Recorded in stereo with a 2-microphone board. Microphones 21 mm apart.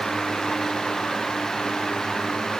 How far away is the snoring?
No snoring in this recording.